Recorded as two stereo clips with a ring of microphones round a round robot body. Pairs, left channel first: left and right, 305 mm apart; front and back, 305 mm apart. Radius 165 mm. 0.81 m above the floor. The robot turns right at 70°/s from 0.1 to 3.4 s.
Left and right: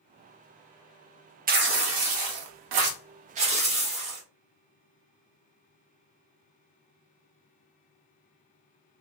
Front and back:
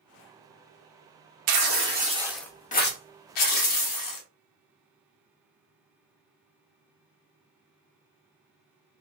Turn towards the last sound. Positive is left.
turn(degrees=-20)